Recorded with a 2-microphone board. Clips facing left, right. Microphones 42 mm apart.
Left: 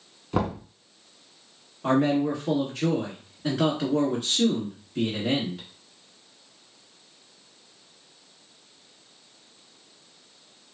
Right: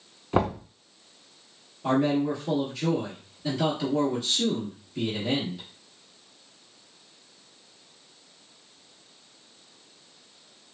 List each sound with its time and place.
0.3 s knocking: 20° right (ahead or behind), 1.0 m
1.8 s a man speaking: 45° left (ahead or behind), 1.6 m